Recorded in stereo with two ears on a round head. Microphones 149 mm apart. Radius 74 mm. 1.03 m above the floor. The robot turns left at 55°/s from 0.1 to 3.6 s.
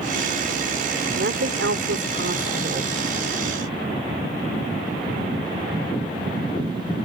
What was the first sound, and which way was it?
A woman speaking, 55° right.